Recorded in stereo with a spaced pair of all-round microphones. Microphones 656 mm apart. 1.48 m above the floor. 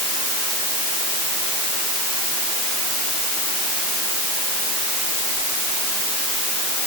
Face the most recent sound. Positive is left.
No sound to turn to.